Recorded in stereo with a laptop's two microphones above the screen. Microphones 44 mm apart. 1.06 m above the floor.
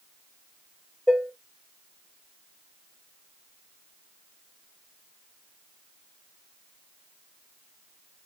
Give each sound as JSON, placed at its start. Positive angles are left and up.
{"t": 1.1, "sound": "dishes clattering", "side_deg": 0, "distance_m": 1.6}